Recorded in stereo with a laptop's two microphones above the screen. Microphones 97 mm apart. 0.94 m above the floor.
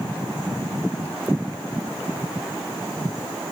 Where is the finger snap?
I don't hear a finger snap.